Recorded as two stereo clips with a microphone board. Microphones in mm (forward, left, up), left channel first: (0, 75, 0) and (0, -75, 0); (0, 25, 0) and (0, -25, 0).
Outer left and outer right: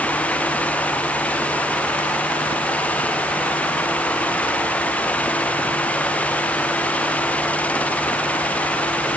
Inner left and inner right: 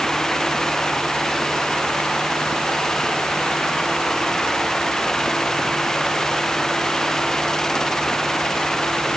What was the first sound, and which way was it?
Only background noise.